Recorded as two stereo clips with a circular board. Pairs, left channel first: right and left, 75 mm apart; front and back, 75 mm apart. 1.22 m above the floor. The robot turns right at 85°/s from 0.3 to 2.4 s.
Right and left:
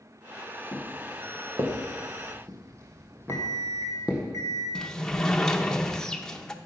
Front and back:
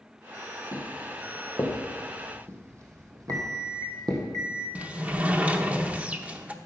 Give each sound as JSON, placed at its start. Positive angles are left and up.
{"t": 0.7, "sound": "footsteps", "azimuth_deg": -45, "distance_m": 4.0}
{"t": 3.3, "sound": "an alarm clock", "azimuth_deg": -135, "distance_m": 3.0}
{"t": 4.8, "sound": "a sliding door", "azimuth_deg": -155, "distance_m": 0.8}